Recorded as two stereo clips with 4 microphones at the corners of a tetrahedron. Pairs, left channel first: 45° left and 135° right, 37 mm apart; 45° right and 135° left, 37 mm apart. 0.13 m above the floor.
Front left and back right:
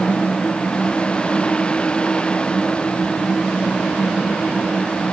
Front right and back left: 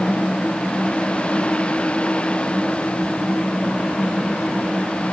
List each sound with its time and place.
Only background noise.